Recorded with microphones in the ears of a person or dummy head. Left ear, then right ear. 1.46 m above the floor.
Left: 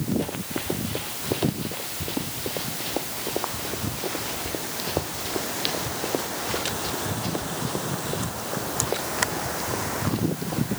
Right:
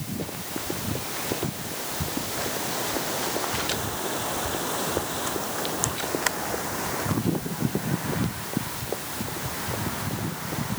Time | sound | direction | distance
0.2 | running footsteps | 45° left (ahead or behind) | ?